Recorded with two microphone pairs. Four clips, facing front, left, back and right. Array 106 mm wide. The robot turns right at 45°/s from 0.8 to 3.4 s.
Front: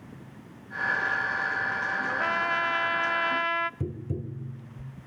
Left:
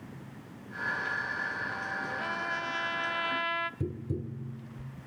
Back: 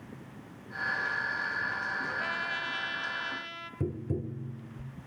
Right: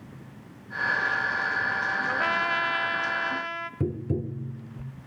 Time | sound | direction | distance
2.1 | a trumpet | 60° right | 0.6 m
3.8 | tapping | 100° right | 0.8 m